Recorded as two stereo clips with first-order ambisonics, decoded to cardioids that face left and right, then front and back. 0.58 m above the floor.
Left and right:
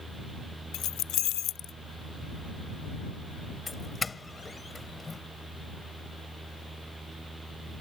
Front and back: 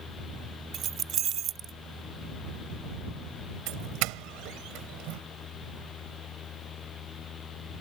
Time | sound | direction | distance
0.7 | keys jangling | 125° left | ?
3.7 | a doorbell | 165° left | ?